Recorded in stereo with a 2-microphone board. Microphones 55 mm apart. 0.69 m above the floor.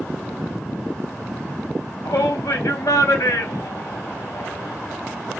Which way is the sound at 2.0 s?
80° left.